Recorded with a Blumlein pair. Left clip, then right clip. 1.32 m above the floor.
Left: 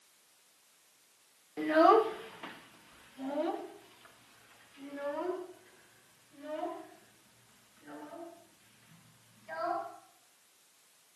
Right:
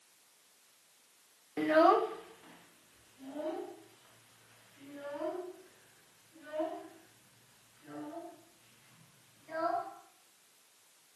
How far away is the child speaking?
About 0.8 m.